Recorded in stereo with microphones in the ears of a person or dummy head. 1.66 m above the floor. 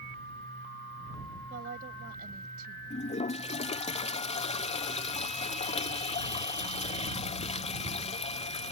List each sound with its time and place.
1.5 s a woman speaking: 55° right (ahead or behind)
2.9 s a toilet flushing: 35° left (ahead or behind)